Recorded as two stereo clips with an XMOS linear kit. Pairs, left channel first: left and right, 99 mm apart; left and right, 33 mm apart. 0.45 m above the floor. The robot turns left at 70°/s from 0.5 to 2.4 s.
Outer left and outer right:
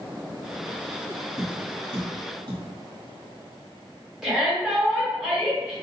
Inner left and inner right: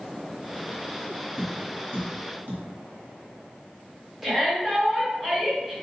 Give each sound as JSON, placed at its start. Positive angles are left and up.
{"t": 1.4, "sound": "tapping", "side_deg": -30, "distance_m": 1.5}
{"t": 4.2, "sound": "a shout", "side_deg": -5, "distance_m": 1.2}